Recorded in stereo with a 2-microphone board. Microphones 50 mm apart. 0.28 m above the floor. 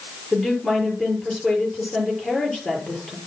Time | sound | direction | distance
0.3 | a woman speaking | centre (ahead or behind) | 7 m